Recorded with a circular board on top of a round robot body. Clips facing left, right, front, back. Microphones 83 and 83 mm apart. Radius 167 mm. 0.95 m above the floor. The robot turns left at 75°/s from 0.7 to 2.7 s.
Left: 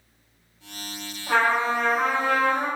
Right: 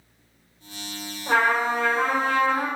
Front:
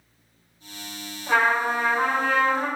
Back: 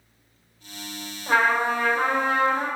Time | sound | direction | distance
1.3 | a trumpet | 115° right | 1.7 m